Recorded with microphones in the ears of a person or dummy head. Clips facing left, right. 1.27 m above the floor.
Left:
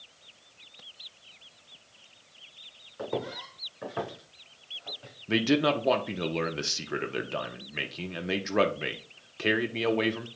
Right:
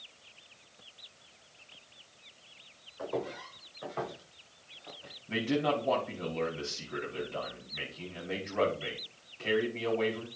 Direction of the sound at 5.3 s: 70° left (ahead or behind).